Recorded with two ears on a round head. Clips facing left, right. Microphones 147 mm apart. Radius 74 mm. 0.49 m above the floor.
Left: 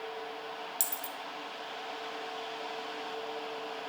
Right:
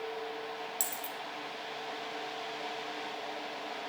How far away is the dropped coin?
About 1.2 m.